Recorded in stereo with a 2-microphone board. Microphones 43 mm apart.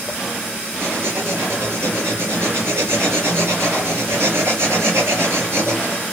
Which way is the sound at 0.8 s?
75° right (ahead or behind).